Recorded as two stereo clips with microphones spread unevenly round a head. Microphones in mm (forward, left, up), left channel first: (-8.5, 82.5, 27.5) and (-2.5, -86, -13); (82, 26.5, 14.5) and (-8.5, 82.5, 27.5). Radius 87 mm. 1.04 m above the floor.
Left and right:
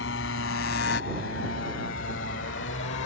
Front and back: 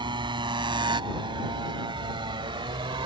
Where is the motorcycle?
105° left; by 3.1 s 110° left.